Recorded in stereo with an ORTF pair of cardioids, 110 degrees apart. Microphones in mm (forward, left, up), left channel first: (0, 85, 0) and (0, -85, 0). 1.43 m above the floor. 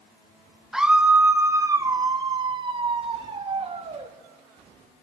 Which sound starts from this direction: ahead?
A scream, at 0.7 s.